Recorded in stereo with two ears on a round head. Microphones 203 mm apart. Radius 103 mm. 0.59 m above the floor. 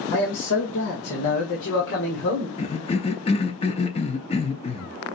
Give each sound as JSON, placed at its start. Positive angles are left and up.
{"t": 0.1, "sound": "a man speaking", "side_deg": 60, "distance_m": 1.9}
{"t": 2.6, "sound": "a cough", "side_deg": 25, "distance_m": 0.6}